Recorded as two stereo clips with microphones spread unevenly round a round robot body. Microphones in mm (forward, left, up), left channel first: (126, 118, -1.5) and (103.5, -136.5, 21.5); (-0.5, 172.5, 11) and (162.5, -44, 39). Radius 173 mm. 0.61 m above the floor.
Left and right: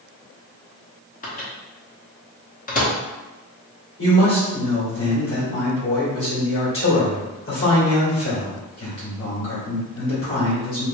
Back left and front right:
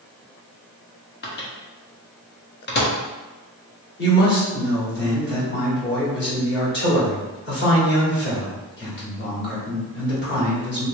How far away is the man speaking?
About 2.0 m.